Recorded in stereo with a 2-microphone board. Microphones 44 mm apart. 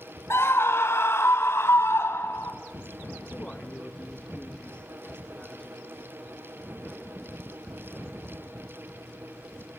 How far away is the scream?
About 4.5 m.